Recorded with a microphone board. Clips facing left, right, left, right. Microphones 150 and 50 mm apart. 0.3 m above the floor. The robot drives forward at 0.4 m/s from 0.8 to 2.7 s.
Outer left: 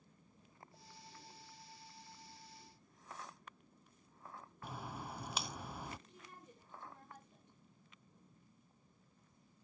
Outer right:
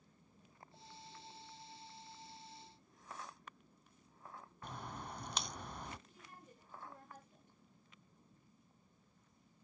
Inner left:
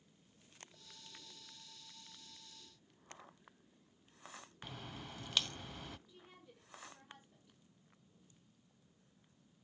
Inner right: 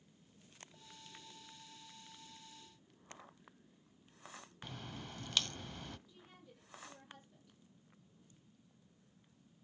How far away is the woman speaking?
About 8.5 m.